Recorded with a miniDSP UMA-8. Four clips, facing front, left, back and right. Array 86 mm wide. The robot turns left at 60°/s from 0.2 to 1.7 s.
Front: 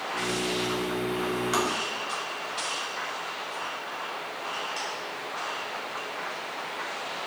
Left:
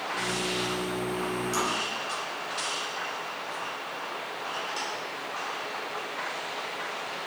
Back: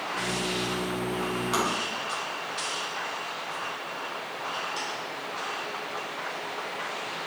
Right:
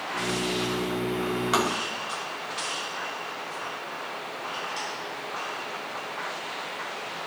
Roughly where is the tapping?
Right.